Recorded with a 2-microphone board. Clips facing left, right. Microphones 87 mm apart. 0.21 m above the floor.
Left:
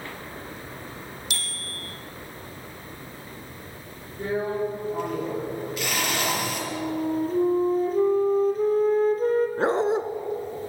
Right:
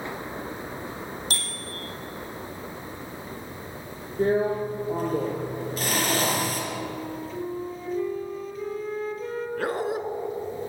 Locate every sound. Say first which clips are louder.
1.3 s a bicycle bell: right 2 dB; 40° right (ahead or behind), 5.5 m
4.2 s a drill: right 4 dB; 40° right (ahead or behind), 4.5 m
6.7 s a flute: left 6 dB; 45° left (ahead or behind), 1.8 m
9.6 s a dog barking: left 5 dB; 25° left (ahead or behind), 1.2 m